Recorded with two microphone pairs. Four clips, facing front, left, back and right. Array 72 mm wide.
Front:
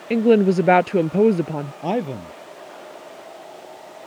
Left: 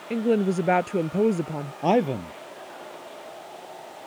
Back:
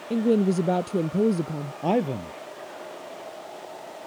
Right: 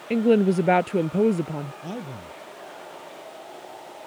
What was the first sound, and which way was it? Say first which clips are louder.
A woman speaking: right 4 dB, front 6 dB; 15° right.